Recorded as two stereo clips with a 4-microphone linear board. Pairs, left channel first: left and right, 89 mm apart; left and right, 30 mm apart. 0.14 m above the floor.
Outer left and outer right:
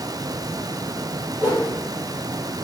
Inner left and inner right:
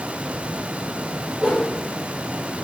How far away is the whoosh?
About 2.5 m.